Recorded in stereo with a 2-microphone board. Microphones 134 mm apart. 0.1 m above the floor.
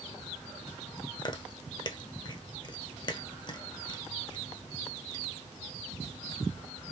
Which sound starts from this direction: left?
Chewing, at 1.2 s.